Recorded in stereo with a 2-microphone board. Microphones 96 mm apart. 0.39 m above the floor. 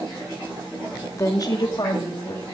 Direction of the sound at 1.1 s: 30° left (ahead or behind).